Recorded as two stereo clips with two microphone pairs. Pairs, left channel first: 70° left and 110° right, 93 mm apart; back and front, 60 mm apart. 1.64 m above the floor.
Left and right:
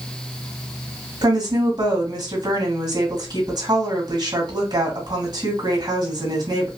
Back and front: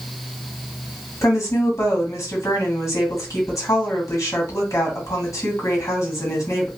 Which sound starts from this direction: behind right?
A woman speaking, at 1.2 s.